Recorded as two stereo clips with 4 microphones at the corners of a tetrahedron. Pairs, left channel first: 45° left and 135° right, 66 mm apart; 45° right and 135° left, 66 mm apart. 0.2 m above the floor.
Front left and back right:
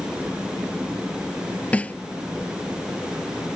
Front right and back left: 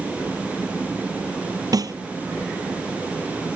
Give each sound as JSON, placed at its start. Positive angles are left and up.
{"t": 1.7, "sound": "a snare drum", "azimuth_deg": 115}